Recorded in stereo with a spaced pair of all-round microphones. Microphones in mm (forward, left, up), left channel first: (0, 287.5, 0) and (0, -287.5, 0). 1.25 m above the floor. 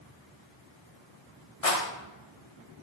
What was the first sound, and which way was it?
A rattle, 75° left (ahead or behind).